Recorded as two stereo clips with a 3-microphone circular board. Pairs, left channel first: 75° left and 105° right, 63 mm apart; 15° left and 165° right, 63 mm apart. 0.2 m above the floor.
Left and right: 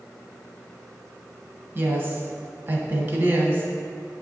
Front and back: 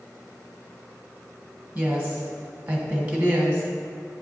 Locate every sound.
1.8 s a woman speaking: 115° right, 1.2 m